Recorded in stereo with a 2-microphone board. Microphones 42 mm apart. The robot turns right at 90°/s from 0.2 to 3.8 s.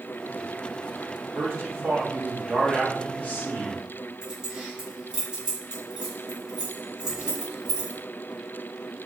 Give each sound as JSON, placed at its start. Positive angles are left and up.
{"t": 1.4, "sound": "a man speaking", "azimuth_deg": -125, "distance_m": 1.7}
{"t": 4.2, "sound": "keys jangling", "side_deg": -15, "distance_m": 1.9}